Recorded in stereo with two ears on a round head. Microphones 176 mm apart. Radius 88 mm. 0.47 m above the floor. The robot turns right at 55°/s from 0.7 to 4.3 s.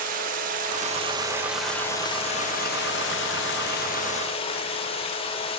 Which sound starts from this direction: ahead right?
Running water, at 0.0 s.